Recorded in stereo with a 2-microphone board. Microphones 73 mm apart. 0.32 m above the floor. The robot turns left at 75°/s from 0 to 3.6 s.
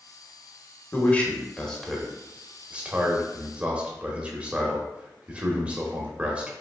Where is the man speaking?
20° left (ahead or behind), 0.9 m; by 6.5 s 20° right (ahead or behind), 0.9 m.